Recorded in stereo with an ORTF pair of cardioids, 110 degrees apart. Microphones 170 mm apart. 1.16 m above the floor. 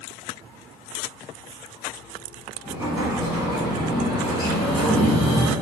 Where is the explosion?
25° right, 1.0 m.